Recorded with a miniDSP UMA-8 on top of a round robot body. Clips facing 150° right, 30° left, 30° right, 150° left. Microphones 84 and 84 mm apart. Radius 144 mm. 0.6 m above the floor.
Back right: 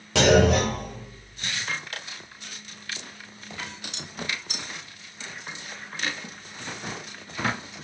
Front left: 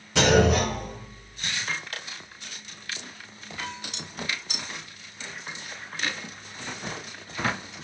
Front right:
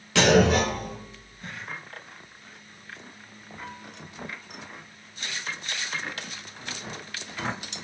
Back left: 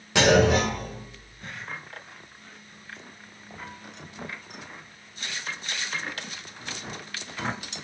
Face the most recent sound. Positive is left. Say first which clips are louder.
# back right 2 dB, even
turn(degrees=-135)